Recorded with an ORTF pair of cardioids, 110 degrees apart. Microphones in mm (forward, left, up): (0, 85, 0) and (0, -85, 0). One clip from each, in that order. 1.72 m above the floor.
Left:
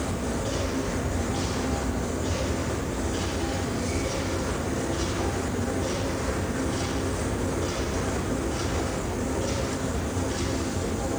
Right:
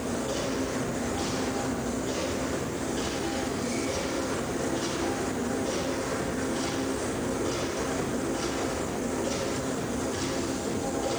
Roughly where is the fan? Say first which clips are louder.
Even; ahead left.